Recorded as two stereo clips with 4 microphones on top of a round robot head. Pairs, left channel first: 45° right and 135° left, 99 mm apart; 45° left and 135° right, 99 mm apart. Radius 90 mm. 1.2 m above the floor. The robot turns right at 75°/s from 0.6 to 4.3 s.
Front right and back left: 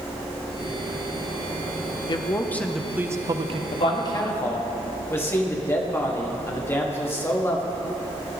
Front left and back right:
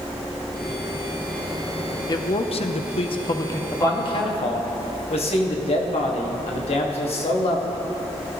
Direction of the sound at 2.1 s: 5° right.